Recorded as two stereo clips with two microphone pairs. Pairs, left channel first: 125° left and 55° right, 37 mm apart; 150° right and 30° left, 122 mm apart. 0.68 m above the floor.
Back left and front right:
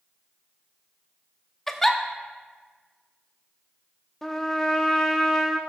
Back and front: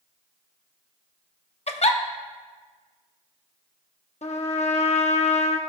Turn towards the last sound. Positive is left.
turn(degrees=-155)